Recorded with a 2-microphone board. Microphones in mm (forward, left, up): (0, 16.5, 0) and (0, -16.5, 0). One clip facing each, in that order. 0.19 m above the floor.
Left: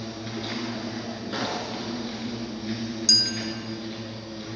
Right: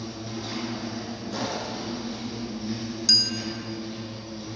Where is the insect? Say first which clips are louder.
Left 1 dB; 40° left (ahead or behind), 2 m.